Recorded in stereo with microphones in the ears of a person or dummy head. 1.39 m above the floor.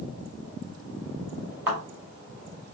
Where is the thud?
20° right (ahead or behind), 2.5 m.